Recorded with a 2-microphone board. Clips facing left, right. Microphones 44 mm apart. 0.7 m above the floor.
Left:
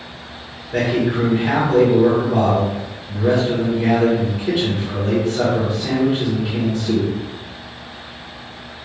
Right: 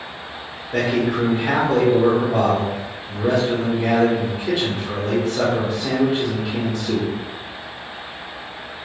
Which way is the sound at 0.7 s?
5° right (ahead or behind).